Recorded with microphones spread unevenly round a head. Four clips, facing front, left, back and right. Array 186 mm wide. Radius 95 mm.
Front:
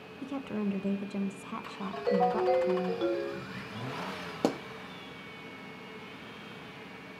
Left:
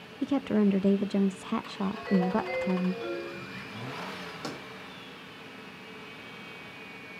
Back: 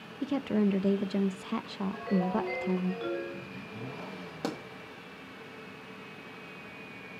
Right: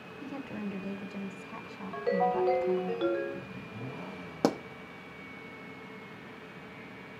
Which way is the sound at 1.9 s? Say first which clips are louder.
Right 1 dB, front 4 dB; 40° right.